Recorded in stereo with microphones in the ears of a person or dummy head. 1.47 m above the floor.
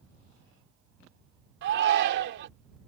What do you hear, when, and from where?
1.6 s a shout: 65° right (ahead or behind)